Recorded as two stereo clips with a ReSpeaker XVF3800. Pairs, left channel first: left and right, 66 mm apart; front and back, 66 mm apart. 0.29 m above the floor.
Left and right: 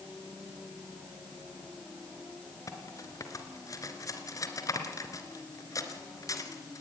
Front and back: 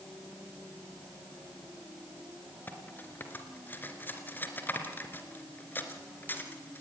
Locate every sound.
2.7 s cutlery clinking: 60° left, 2.5 m